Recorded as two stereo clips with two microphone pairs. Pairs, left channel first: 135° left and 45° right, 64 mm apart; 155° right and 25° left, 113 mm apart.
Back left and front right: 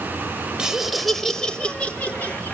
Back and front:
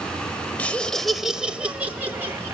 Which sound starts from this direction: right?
Laughter, at 0.6 s.